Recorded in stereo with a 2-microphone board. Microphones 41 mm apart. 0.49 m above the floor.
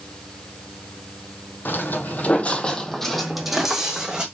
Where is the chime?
No chime in this recording.